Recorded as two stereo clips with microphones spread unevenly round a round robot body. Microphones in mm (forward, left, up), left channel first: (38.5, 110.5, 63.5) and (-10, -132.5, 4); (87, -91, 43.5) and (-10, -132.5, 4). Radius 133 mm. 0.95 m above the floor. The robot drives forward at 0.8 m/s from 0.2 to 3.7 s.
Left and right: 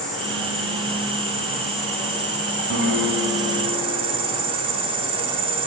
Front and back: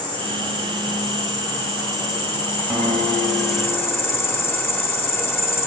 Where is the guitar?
60° right, 1.3 m; by 4.2 s 105° right, 1.2 m.